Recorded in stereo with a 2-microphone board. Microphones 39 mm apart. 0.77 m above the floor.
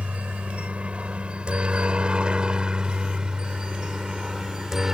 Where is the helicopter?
35° right (ahead or behind); by 5.0 s 10° right (ahead or behind).